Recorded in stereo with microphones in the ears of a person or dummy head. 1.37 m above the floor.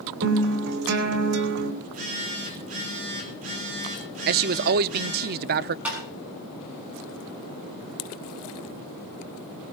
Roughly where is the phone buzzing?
Right.